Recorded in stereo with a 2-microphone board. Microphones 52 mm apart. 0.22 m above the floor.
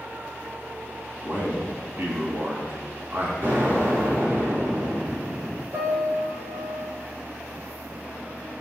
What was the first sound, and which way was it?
A man speaking, 40° right (ahead or behind).